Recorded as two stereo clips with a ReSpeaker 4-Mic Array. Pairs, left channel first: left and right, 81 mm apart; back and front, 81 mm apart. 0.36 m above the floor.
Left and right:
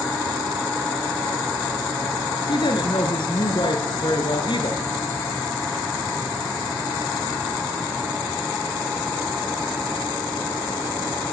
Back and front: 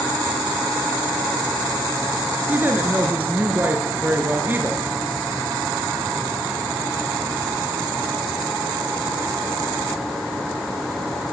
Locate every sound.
2.5 s a woman speaking: 65° left, 4.5 m